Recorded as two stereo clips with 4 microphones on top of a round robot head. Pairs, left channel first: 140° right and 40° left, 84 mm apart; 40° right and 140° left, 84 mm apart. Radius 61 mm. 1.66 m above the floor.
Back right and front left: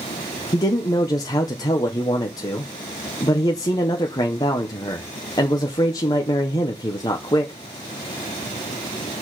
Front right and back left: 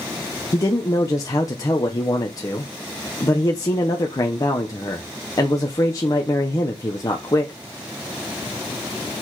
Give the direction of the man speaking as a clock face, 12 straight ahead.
3 o'clock.